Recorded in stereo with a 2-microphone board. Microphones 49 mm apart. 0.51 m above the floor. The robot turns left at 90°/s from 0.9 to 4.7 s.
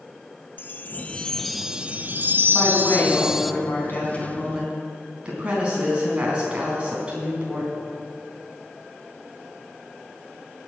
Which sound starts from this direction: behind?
A woman speaking, at 2.5 s.